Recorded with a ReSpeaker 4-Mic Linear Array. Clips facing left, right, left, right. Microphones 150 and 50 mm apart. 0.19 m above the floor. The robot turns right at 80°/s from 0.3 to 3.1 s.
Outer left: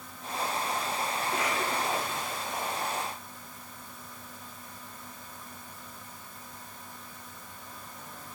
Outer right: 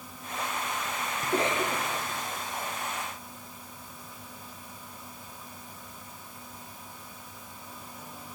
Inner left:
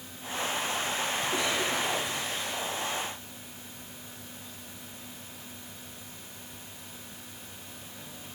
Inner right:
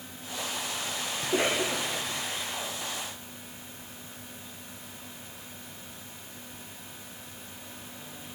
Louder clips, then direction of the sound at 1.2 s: Outer right 6 dB, inner right 5 dB; 50° right.